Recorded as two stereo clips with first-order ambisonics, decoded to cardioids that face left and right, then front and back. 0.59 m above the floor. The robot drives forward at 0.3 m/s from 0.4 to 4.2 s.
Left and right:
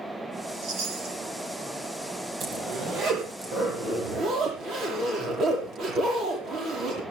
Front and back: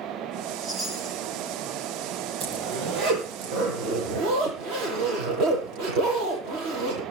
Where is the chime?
105° right, 3.5 m; by 1.2 s 110° right, 4 m.